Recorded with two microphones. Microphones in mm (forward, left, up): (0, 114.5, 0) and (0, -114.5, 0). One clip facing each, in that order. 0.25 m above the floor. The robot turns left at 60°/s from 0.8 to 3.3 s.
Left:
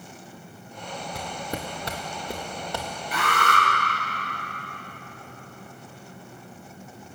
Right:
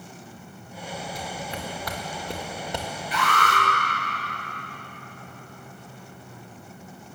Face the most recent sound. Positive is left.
turn(degrees=60)  # may be behind; listen again after turning